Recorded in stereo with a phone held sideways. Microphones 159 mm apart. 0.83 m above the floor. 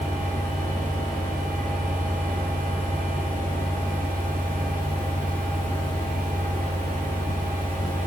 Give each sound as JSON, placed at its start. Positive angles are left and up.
{"t": 0.0, "sound": "a fan", "side_deg": -55, "distance_m": 3.0}